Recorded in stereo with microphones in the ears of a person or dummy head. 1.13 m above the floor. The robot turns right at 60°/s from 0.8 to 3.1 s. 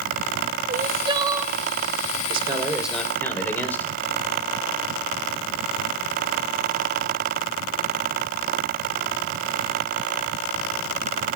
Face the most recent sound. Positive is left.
turn(degrees=15)